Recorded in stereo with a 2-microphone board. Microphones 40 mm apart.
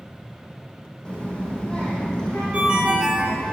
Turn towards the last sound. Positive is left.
turn(degrees=-25)  # may be behind; listen again after turning